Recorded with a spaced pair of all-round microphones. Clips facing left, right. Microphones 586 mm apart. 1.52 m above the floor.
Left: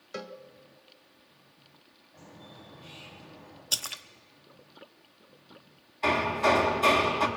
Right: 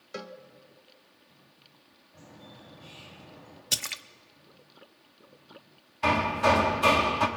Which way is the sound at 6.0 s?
35° right (ahead or behind).